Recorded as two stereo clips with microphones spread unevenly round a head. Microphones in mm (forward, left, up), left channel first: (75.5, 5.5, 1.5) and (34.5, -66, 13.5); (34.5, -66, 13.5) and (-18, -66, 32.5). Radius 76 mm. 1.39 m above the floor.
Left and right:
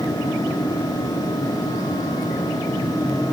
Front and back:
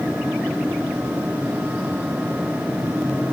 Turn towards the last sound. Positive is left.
No sound to turn to.